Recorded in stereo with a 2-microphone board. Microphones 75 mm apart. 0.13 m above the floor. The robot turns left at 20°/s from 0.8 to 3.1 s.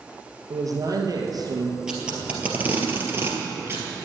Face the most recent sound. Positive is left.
turn(degrees=-30)  # may be behind; listen again after turning